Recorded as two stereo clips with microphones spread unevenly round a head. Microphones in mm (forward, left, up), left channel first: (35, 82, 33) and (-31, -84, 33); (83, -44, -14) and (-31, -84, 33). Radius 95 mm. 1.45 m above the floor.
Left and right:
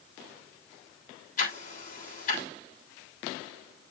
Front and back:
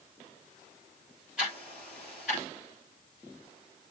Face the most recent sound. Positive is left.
turn(degrees=110)